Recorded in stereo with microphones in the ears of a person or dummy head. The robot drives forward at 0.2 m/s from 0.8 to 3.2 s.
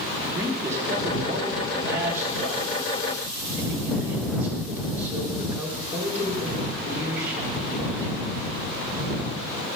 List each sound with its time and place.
0.3 s a man speaking: 15° right (ahead or behind), 1.1 m; by 8.1 s 10° right (ahead or behind), 1.5 m